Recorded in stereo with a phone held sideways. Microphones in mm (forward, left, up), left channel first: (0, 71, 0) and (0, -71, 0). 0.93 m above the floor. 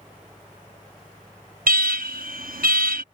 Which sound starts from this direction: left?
A fan, at 0.0 s.